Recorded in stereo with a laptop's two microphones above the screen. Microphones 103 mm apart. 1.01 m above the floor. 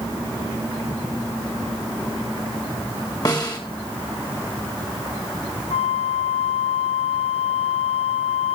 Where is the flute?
80° left, 1.3 m.